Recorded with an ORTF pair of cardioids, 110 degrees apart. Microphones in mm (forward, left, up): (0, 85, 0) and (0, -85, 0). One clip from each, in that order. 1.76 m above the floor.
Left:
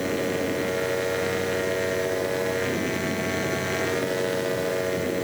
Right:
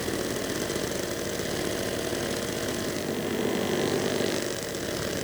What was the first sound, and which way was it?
Only background noise.